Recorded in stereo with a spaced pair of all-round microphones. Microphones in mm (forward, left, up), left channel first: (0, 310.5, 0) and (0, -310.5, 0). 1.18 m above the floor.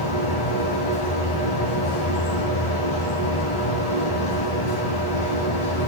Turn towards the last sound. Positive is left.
turn(degrees=50)  # may be behind; listen again after turning